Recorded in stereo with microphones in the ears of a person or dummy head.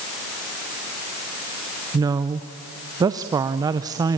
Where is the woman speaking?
20° right (ahead or behind), 0.6 m.